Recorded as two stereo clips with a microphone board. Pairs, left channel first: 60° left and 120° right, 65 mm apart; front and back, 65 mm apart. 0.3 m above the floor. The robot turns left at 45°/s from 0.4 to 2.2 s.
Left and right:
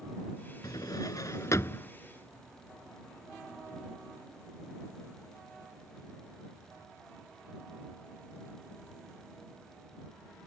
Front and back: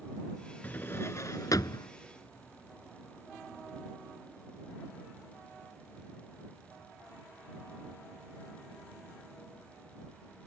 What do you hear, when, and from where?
0.6 s a drawer: 60° left; by 1.9 s 5° left